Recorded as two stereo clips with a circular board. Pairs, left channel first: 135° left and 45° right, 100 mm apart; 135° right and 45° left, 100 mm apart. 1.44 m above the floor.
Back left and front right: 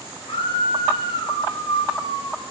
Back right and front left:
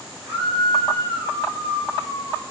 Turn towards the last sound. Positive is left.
turn(degrees=115)